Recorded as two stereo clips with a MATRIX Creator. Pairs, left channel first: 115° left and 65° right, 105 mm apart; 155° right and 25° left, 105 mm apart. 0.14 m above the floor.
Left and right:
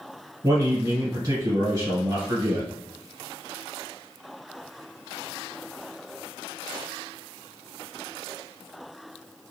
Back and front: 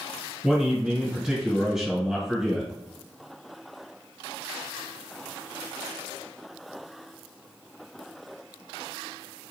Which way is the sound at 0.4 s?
60° right.